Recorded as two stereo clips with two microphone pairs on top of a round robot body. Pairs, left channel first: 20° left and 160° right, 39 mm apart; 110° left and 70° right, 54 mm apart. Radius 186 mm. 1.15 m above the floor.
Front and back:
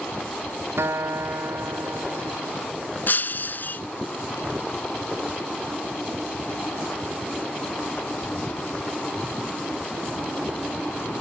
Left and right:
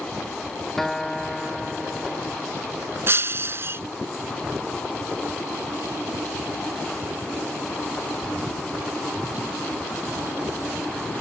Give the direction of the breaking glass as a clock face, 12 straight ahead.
1 o'clock.